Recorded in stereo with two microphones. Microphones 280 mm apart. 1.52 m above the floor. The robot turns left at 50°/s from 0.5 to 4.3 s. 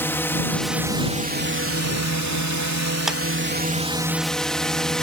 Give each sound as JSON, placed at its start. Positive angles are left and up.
{"t": 0.0, "sound": "a drone", "azimuth_deg": 10}
{"t": 3.1, "sound": "a clap", "side_deg": 0}